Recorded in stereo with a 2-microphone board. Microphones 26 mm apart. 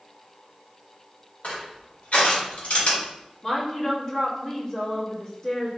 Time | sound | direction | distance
1.4 | crushing | 60° left (ahead or behind) | 2 m
3.4 | a woman speaking | 15° left (ahead or behind) | 1.6 m